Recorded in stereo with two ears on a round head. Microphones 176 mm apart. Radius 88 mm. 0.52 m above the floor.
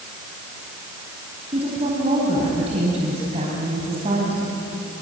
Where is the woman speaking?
35° right (ahead or behind), 4.5 m.